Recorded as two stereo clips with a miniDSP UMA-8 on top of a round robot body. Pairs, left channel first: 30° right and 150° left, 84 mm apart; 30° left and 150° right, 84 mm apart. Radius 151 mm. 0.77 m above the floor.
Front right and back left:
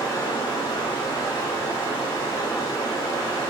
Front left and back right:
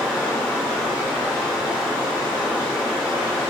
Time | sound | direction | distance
0.0 | running water | 75° right | 1.4 m